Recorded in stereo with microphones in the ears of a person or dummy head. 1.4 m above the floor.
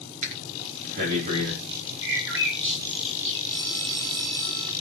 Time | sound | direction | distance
0.2 | breathing | 40° right (ahead or behind) | 3.5 m
2.0 | a bird | 65° right (ahead or behind) | 3 m
3.5 | a phone ringing | 35° right (ahead or behind) | 8 m